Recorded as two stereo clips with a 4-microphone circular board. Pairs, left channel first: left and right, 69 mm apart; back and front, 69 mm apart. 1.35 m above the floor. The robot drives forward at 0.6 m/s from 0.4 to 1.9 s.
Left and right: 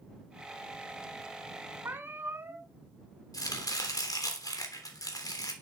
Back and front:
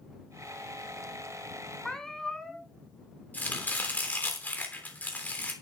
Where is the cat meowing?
100° right, 1.5 m.